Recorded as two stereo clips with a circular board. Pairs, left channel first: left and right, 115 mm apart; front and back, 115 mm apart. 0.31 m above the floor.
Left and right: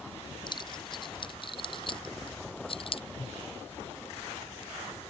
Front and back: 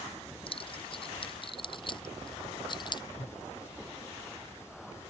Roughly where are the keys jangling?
Ahead left.